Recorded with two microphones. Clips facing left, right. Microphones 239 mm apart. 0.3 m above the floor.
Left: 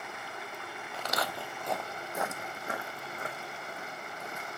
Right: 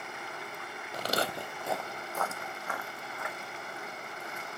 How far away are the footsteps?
About 0.6 m.